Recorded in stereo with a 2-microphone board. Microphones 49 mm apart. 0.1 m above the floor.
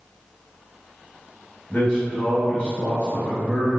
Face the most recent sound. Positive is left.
turn(degrees=25)  # may be behind; listen again after turning